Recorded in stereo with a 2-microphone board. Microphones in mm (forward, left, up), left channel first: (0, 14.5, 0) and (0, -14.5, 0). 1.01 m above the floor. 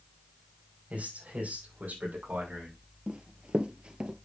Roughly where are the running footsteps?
Right.